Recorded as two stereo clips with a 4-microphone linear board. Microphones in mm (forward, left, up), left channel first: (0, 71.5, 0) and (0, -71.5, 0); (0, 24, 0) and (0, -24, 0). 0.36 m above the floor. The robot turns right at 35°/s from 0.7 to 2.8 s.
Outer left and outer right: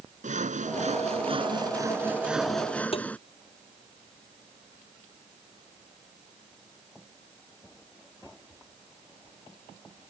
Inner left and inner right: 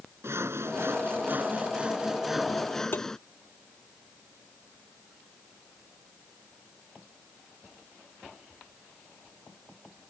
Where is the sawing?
65° right; by 3.2 s 10° left.